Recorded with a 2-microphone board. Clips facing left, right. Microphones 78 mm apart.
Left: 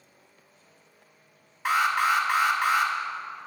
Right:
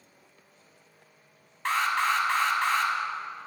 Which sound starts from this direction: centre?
An alarm, at 1.6 s.